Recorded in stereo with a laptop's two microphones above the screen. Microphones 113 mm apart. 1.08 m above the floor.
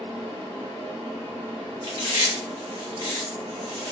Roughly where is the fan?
Right.